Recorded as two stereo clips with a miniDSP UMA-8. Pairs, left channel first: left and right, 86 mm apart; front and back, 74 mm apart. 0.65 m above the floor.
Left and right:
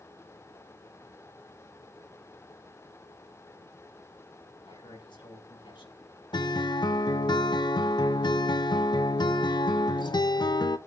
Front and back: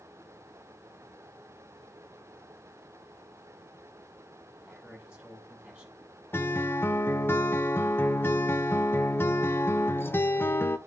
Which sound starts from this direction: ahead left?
A guitar, at 6.3 s.